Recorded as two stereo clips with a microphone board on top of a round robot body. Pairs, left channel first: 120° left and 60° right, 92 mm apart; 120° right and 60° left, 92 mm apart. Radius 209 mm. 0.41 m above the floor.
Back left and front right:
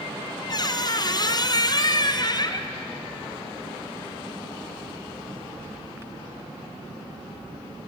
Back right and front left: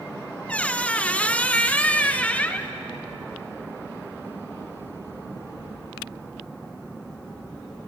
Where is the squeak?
165° left, 1.2 m.